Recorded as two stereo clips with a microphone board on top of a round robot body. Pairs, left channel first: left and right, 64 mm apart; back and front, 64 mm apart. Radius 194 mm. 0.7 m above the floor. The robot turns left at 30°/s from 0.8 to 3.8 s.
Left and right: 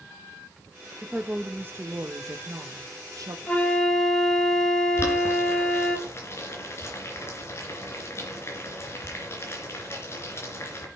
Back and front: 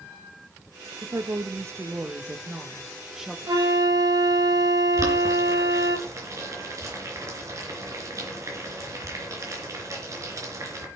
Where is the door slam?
No door slam in this recording.